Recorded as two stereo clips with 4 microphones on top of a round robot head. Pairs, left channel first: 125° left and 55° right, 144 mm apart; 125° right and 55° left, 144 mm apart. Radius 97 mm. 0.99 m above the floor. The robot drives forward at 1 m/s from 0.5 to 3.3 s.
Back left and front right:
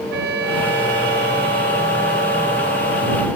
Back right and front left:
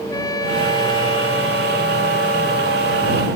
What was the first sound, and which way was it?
A trumpet, 60° right.